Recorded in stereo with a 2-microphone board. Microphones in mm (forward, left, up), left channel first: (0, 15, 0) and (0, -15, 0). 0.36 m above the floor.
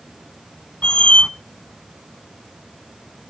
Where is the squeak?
40° left (ahead or behind), 0.6 m.